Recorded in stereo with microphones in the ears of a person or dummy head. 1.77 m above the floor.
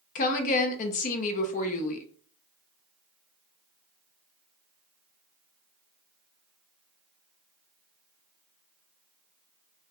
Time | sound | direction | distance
0.1 | a woman speaking | 45° left (ahead or behind) | 0.6 m